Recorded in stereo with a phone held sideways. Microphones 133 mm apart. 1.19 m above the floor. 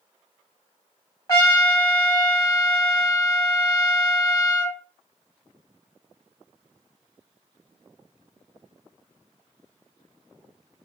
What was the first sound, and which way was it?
A trumpet, 25° left (ahead or behind).